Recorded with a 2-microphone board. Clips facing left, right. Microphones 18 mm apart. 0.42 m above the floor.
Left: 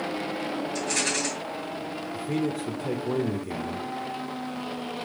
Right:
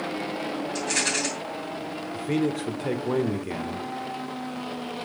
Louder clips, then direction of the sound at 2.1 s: Right 3 dB; 25° right (ahead or behind).